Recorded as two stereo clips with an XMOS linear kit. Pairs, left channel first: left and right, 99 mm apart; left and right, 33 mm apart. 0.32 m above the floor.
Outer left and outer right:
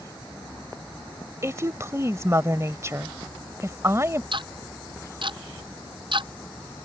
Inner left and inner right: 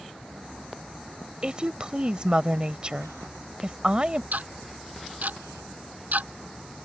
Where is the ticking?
60° right (ahead or behind).